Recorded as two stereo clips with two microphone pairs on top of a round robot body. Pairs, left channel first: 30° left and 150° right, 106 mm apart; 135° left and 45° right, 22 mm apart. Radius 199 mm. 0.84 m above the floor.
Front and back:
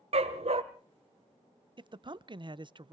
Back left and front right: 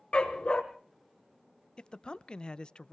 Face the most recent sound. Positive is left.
turn(degrees=180)